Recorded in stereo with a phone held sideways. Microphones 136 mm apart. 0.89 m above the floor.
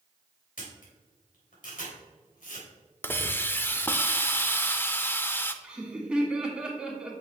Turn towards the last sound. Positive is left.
turn(degrees=-5)  # may be behind; listen again after turning